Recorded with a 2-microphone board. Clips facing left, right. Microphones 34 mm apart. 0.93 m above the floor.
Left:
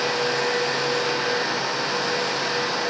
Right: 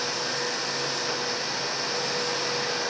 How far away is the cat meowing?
No cat meowing in this recording.